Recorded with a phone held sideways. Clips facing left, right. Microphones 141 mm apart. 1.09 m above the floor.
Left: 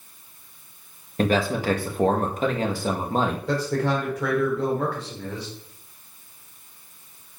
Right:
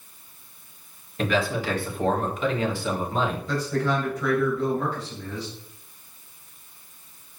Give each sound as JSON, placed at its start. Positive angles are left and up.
{"t": 1.2, "sound": "a man speaking", "side_deg": 40, "distance_m": 1.8}
{"t": 3.5, "sound": "a man speaking", "side_deg": 75, "distance_m": 4.0}